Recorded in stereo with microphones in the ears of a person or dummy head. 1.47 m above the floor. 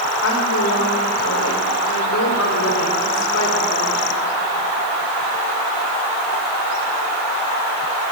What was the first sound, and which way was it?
A woman speaking, 75° left (ahead or behind).